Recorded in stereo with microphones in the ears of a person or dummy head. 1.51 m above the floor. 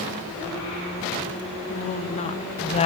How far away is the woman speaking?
About 3 m.